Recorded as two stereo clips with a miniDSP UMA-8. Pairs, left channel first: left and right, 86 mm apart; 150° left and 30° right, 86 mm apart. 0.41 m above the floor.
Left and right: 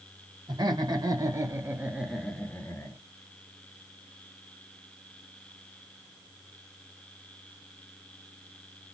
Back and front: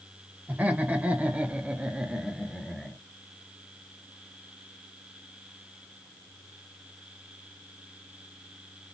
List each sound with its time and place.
0.5 s laughter: 95° right, 1.6 m; by 3.0 s 70° left, 1.0 m